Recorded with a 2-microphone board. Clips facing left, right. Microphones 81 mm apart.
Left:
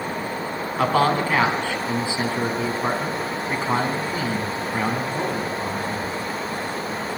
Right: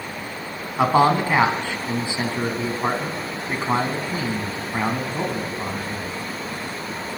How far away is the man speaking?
About 2 m.